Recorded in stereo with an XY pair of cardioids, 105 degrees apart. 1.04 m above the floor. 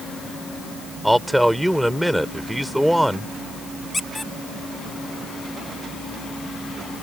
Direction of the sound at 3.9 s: 20° left.